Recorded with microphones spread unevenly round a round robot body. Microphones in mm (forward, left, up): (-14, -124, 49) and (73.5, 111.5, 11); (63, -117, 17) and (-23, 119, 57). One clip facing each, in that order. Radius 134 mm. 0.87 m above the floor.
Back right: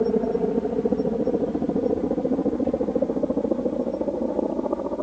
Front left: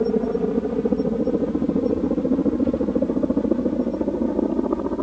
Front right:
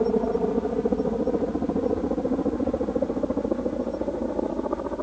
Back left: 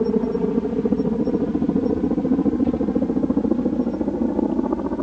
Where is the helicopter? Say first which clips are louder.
Front left 1 dB, back left 3 dB; 145° left; by 5.0 s 125° left.